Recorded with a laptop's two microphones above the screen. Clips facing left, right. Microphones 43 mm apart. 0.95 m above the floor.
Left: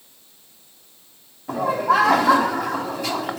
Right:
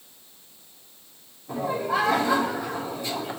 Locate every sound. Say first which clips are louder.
1.5 s laughter: left 7 dB; 80° left, 1.8 m